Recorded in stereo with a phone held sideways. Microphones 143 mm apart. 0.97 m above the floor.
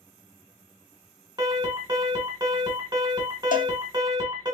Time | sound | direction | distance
1.4 | an alarm | 30° right (ahead or behind) | 1.8 m
3.5 | a cowbell | 70° left (ahead or behind) | 0.5 m